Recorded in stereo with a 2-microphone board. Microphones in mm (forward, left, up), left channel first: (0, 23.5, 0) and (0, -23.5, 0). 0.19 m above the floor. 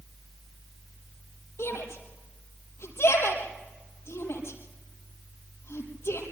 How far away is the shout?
About 4.5 m.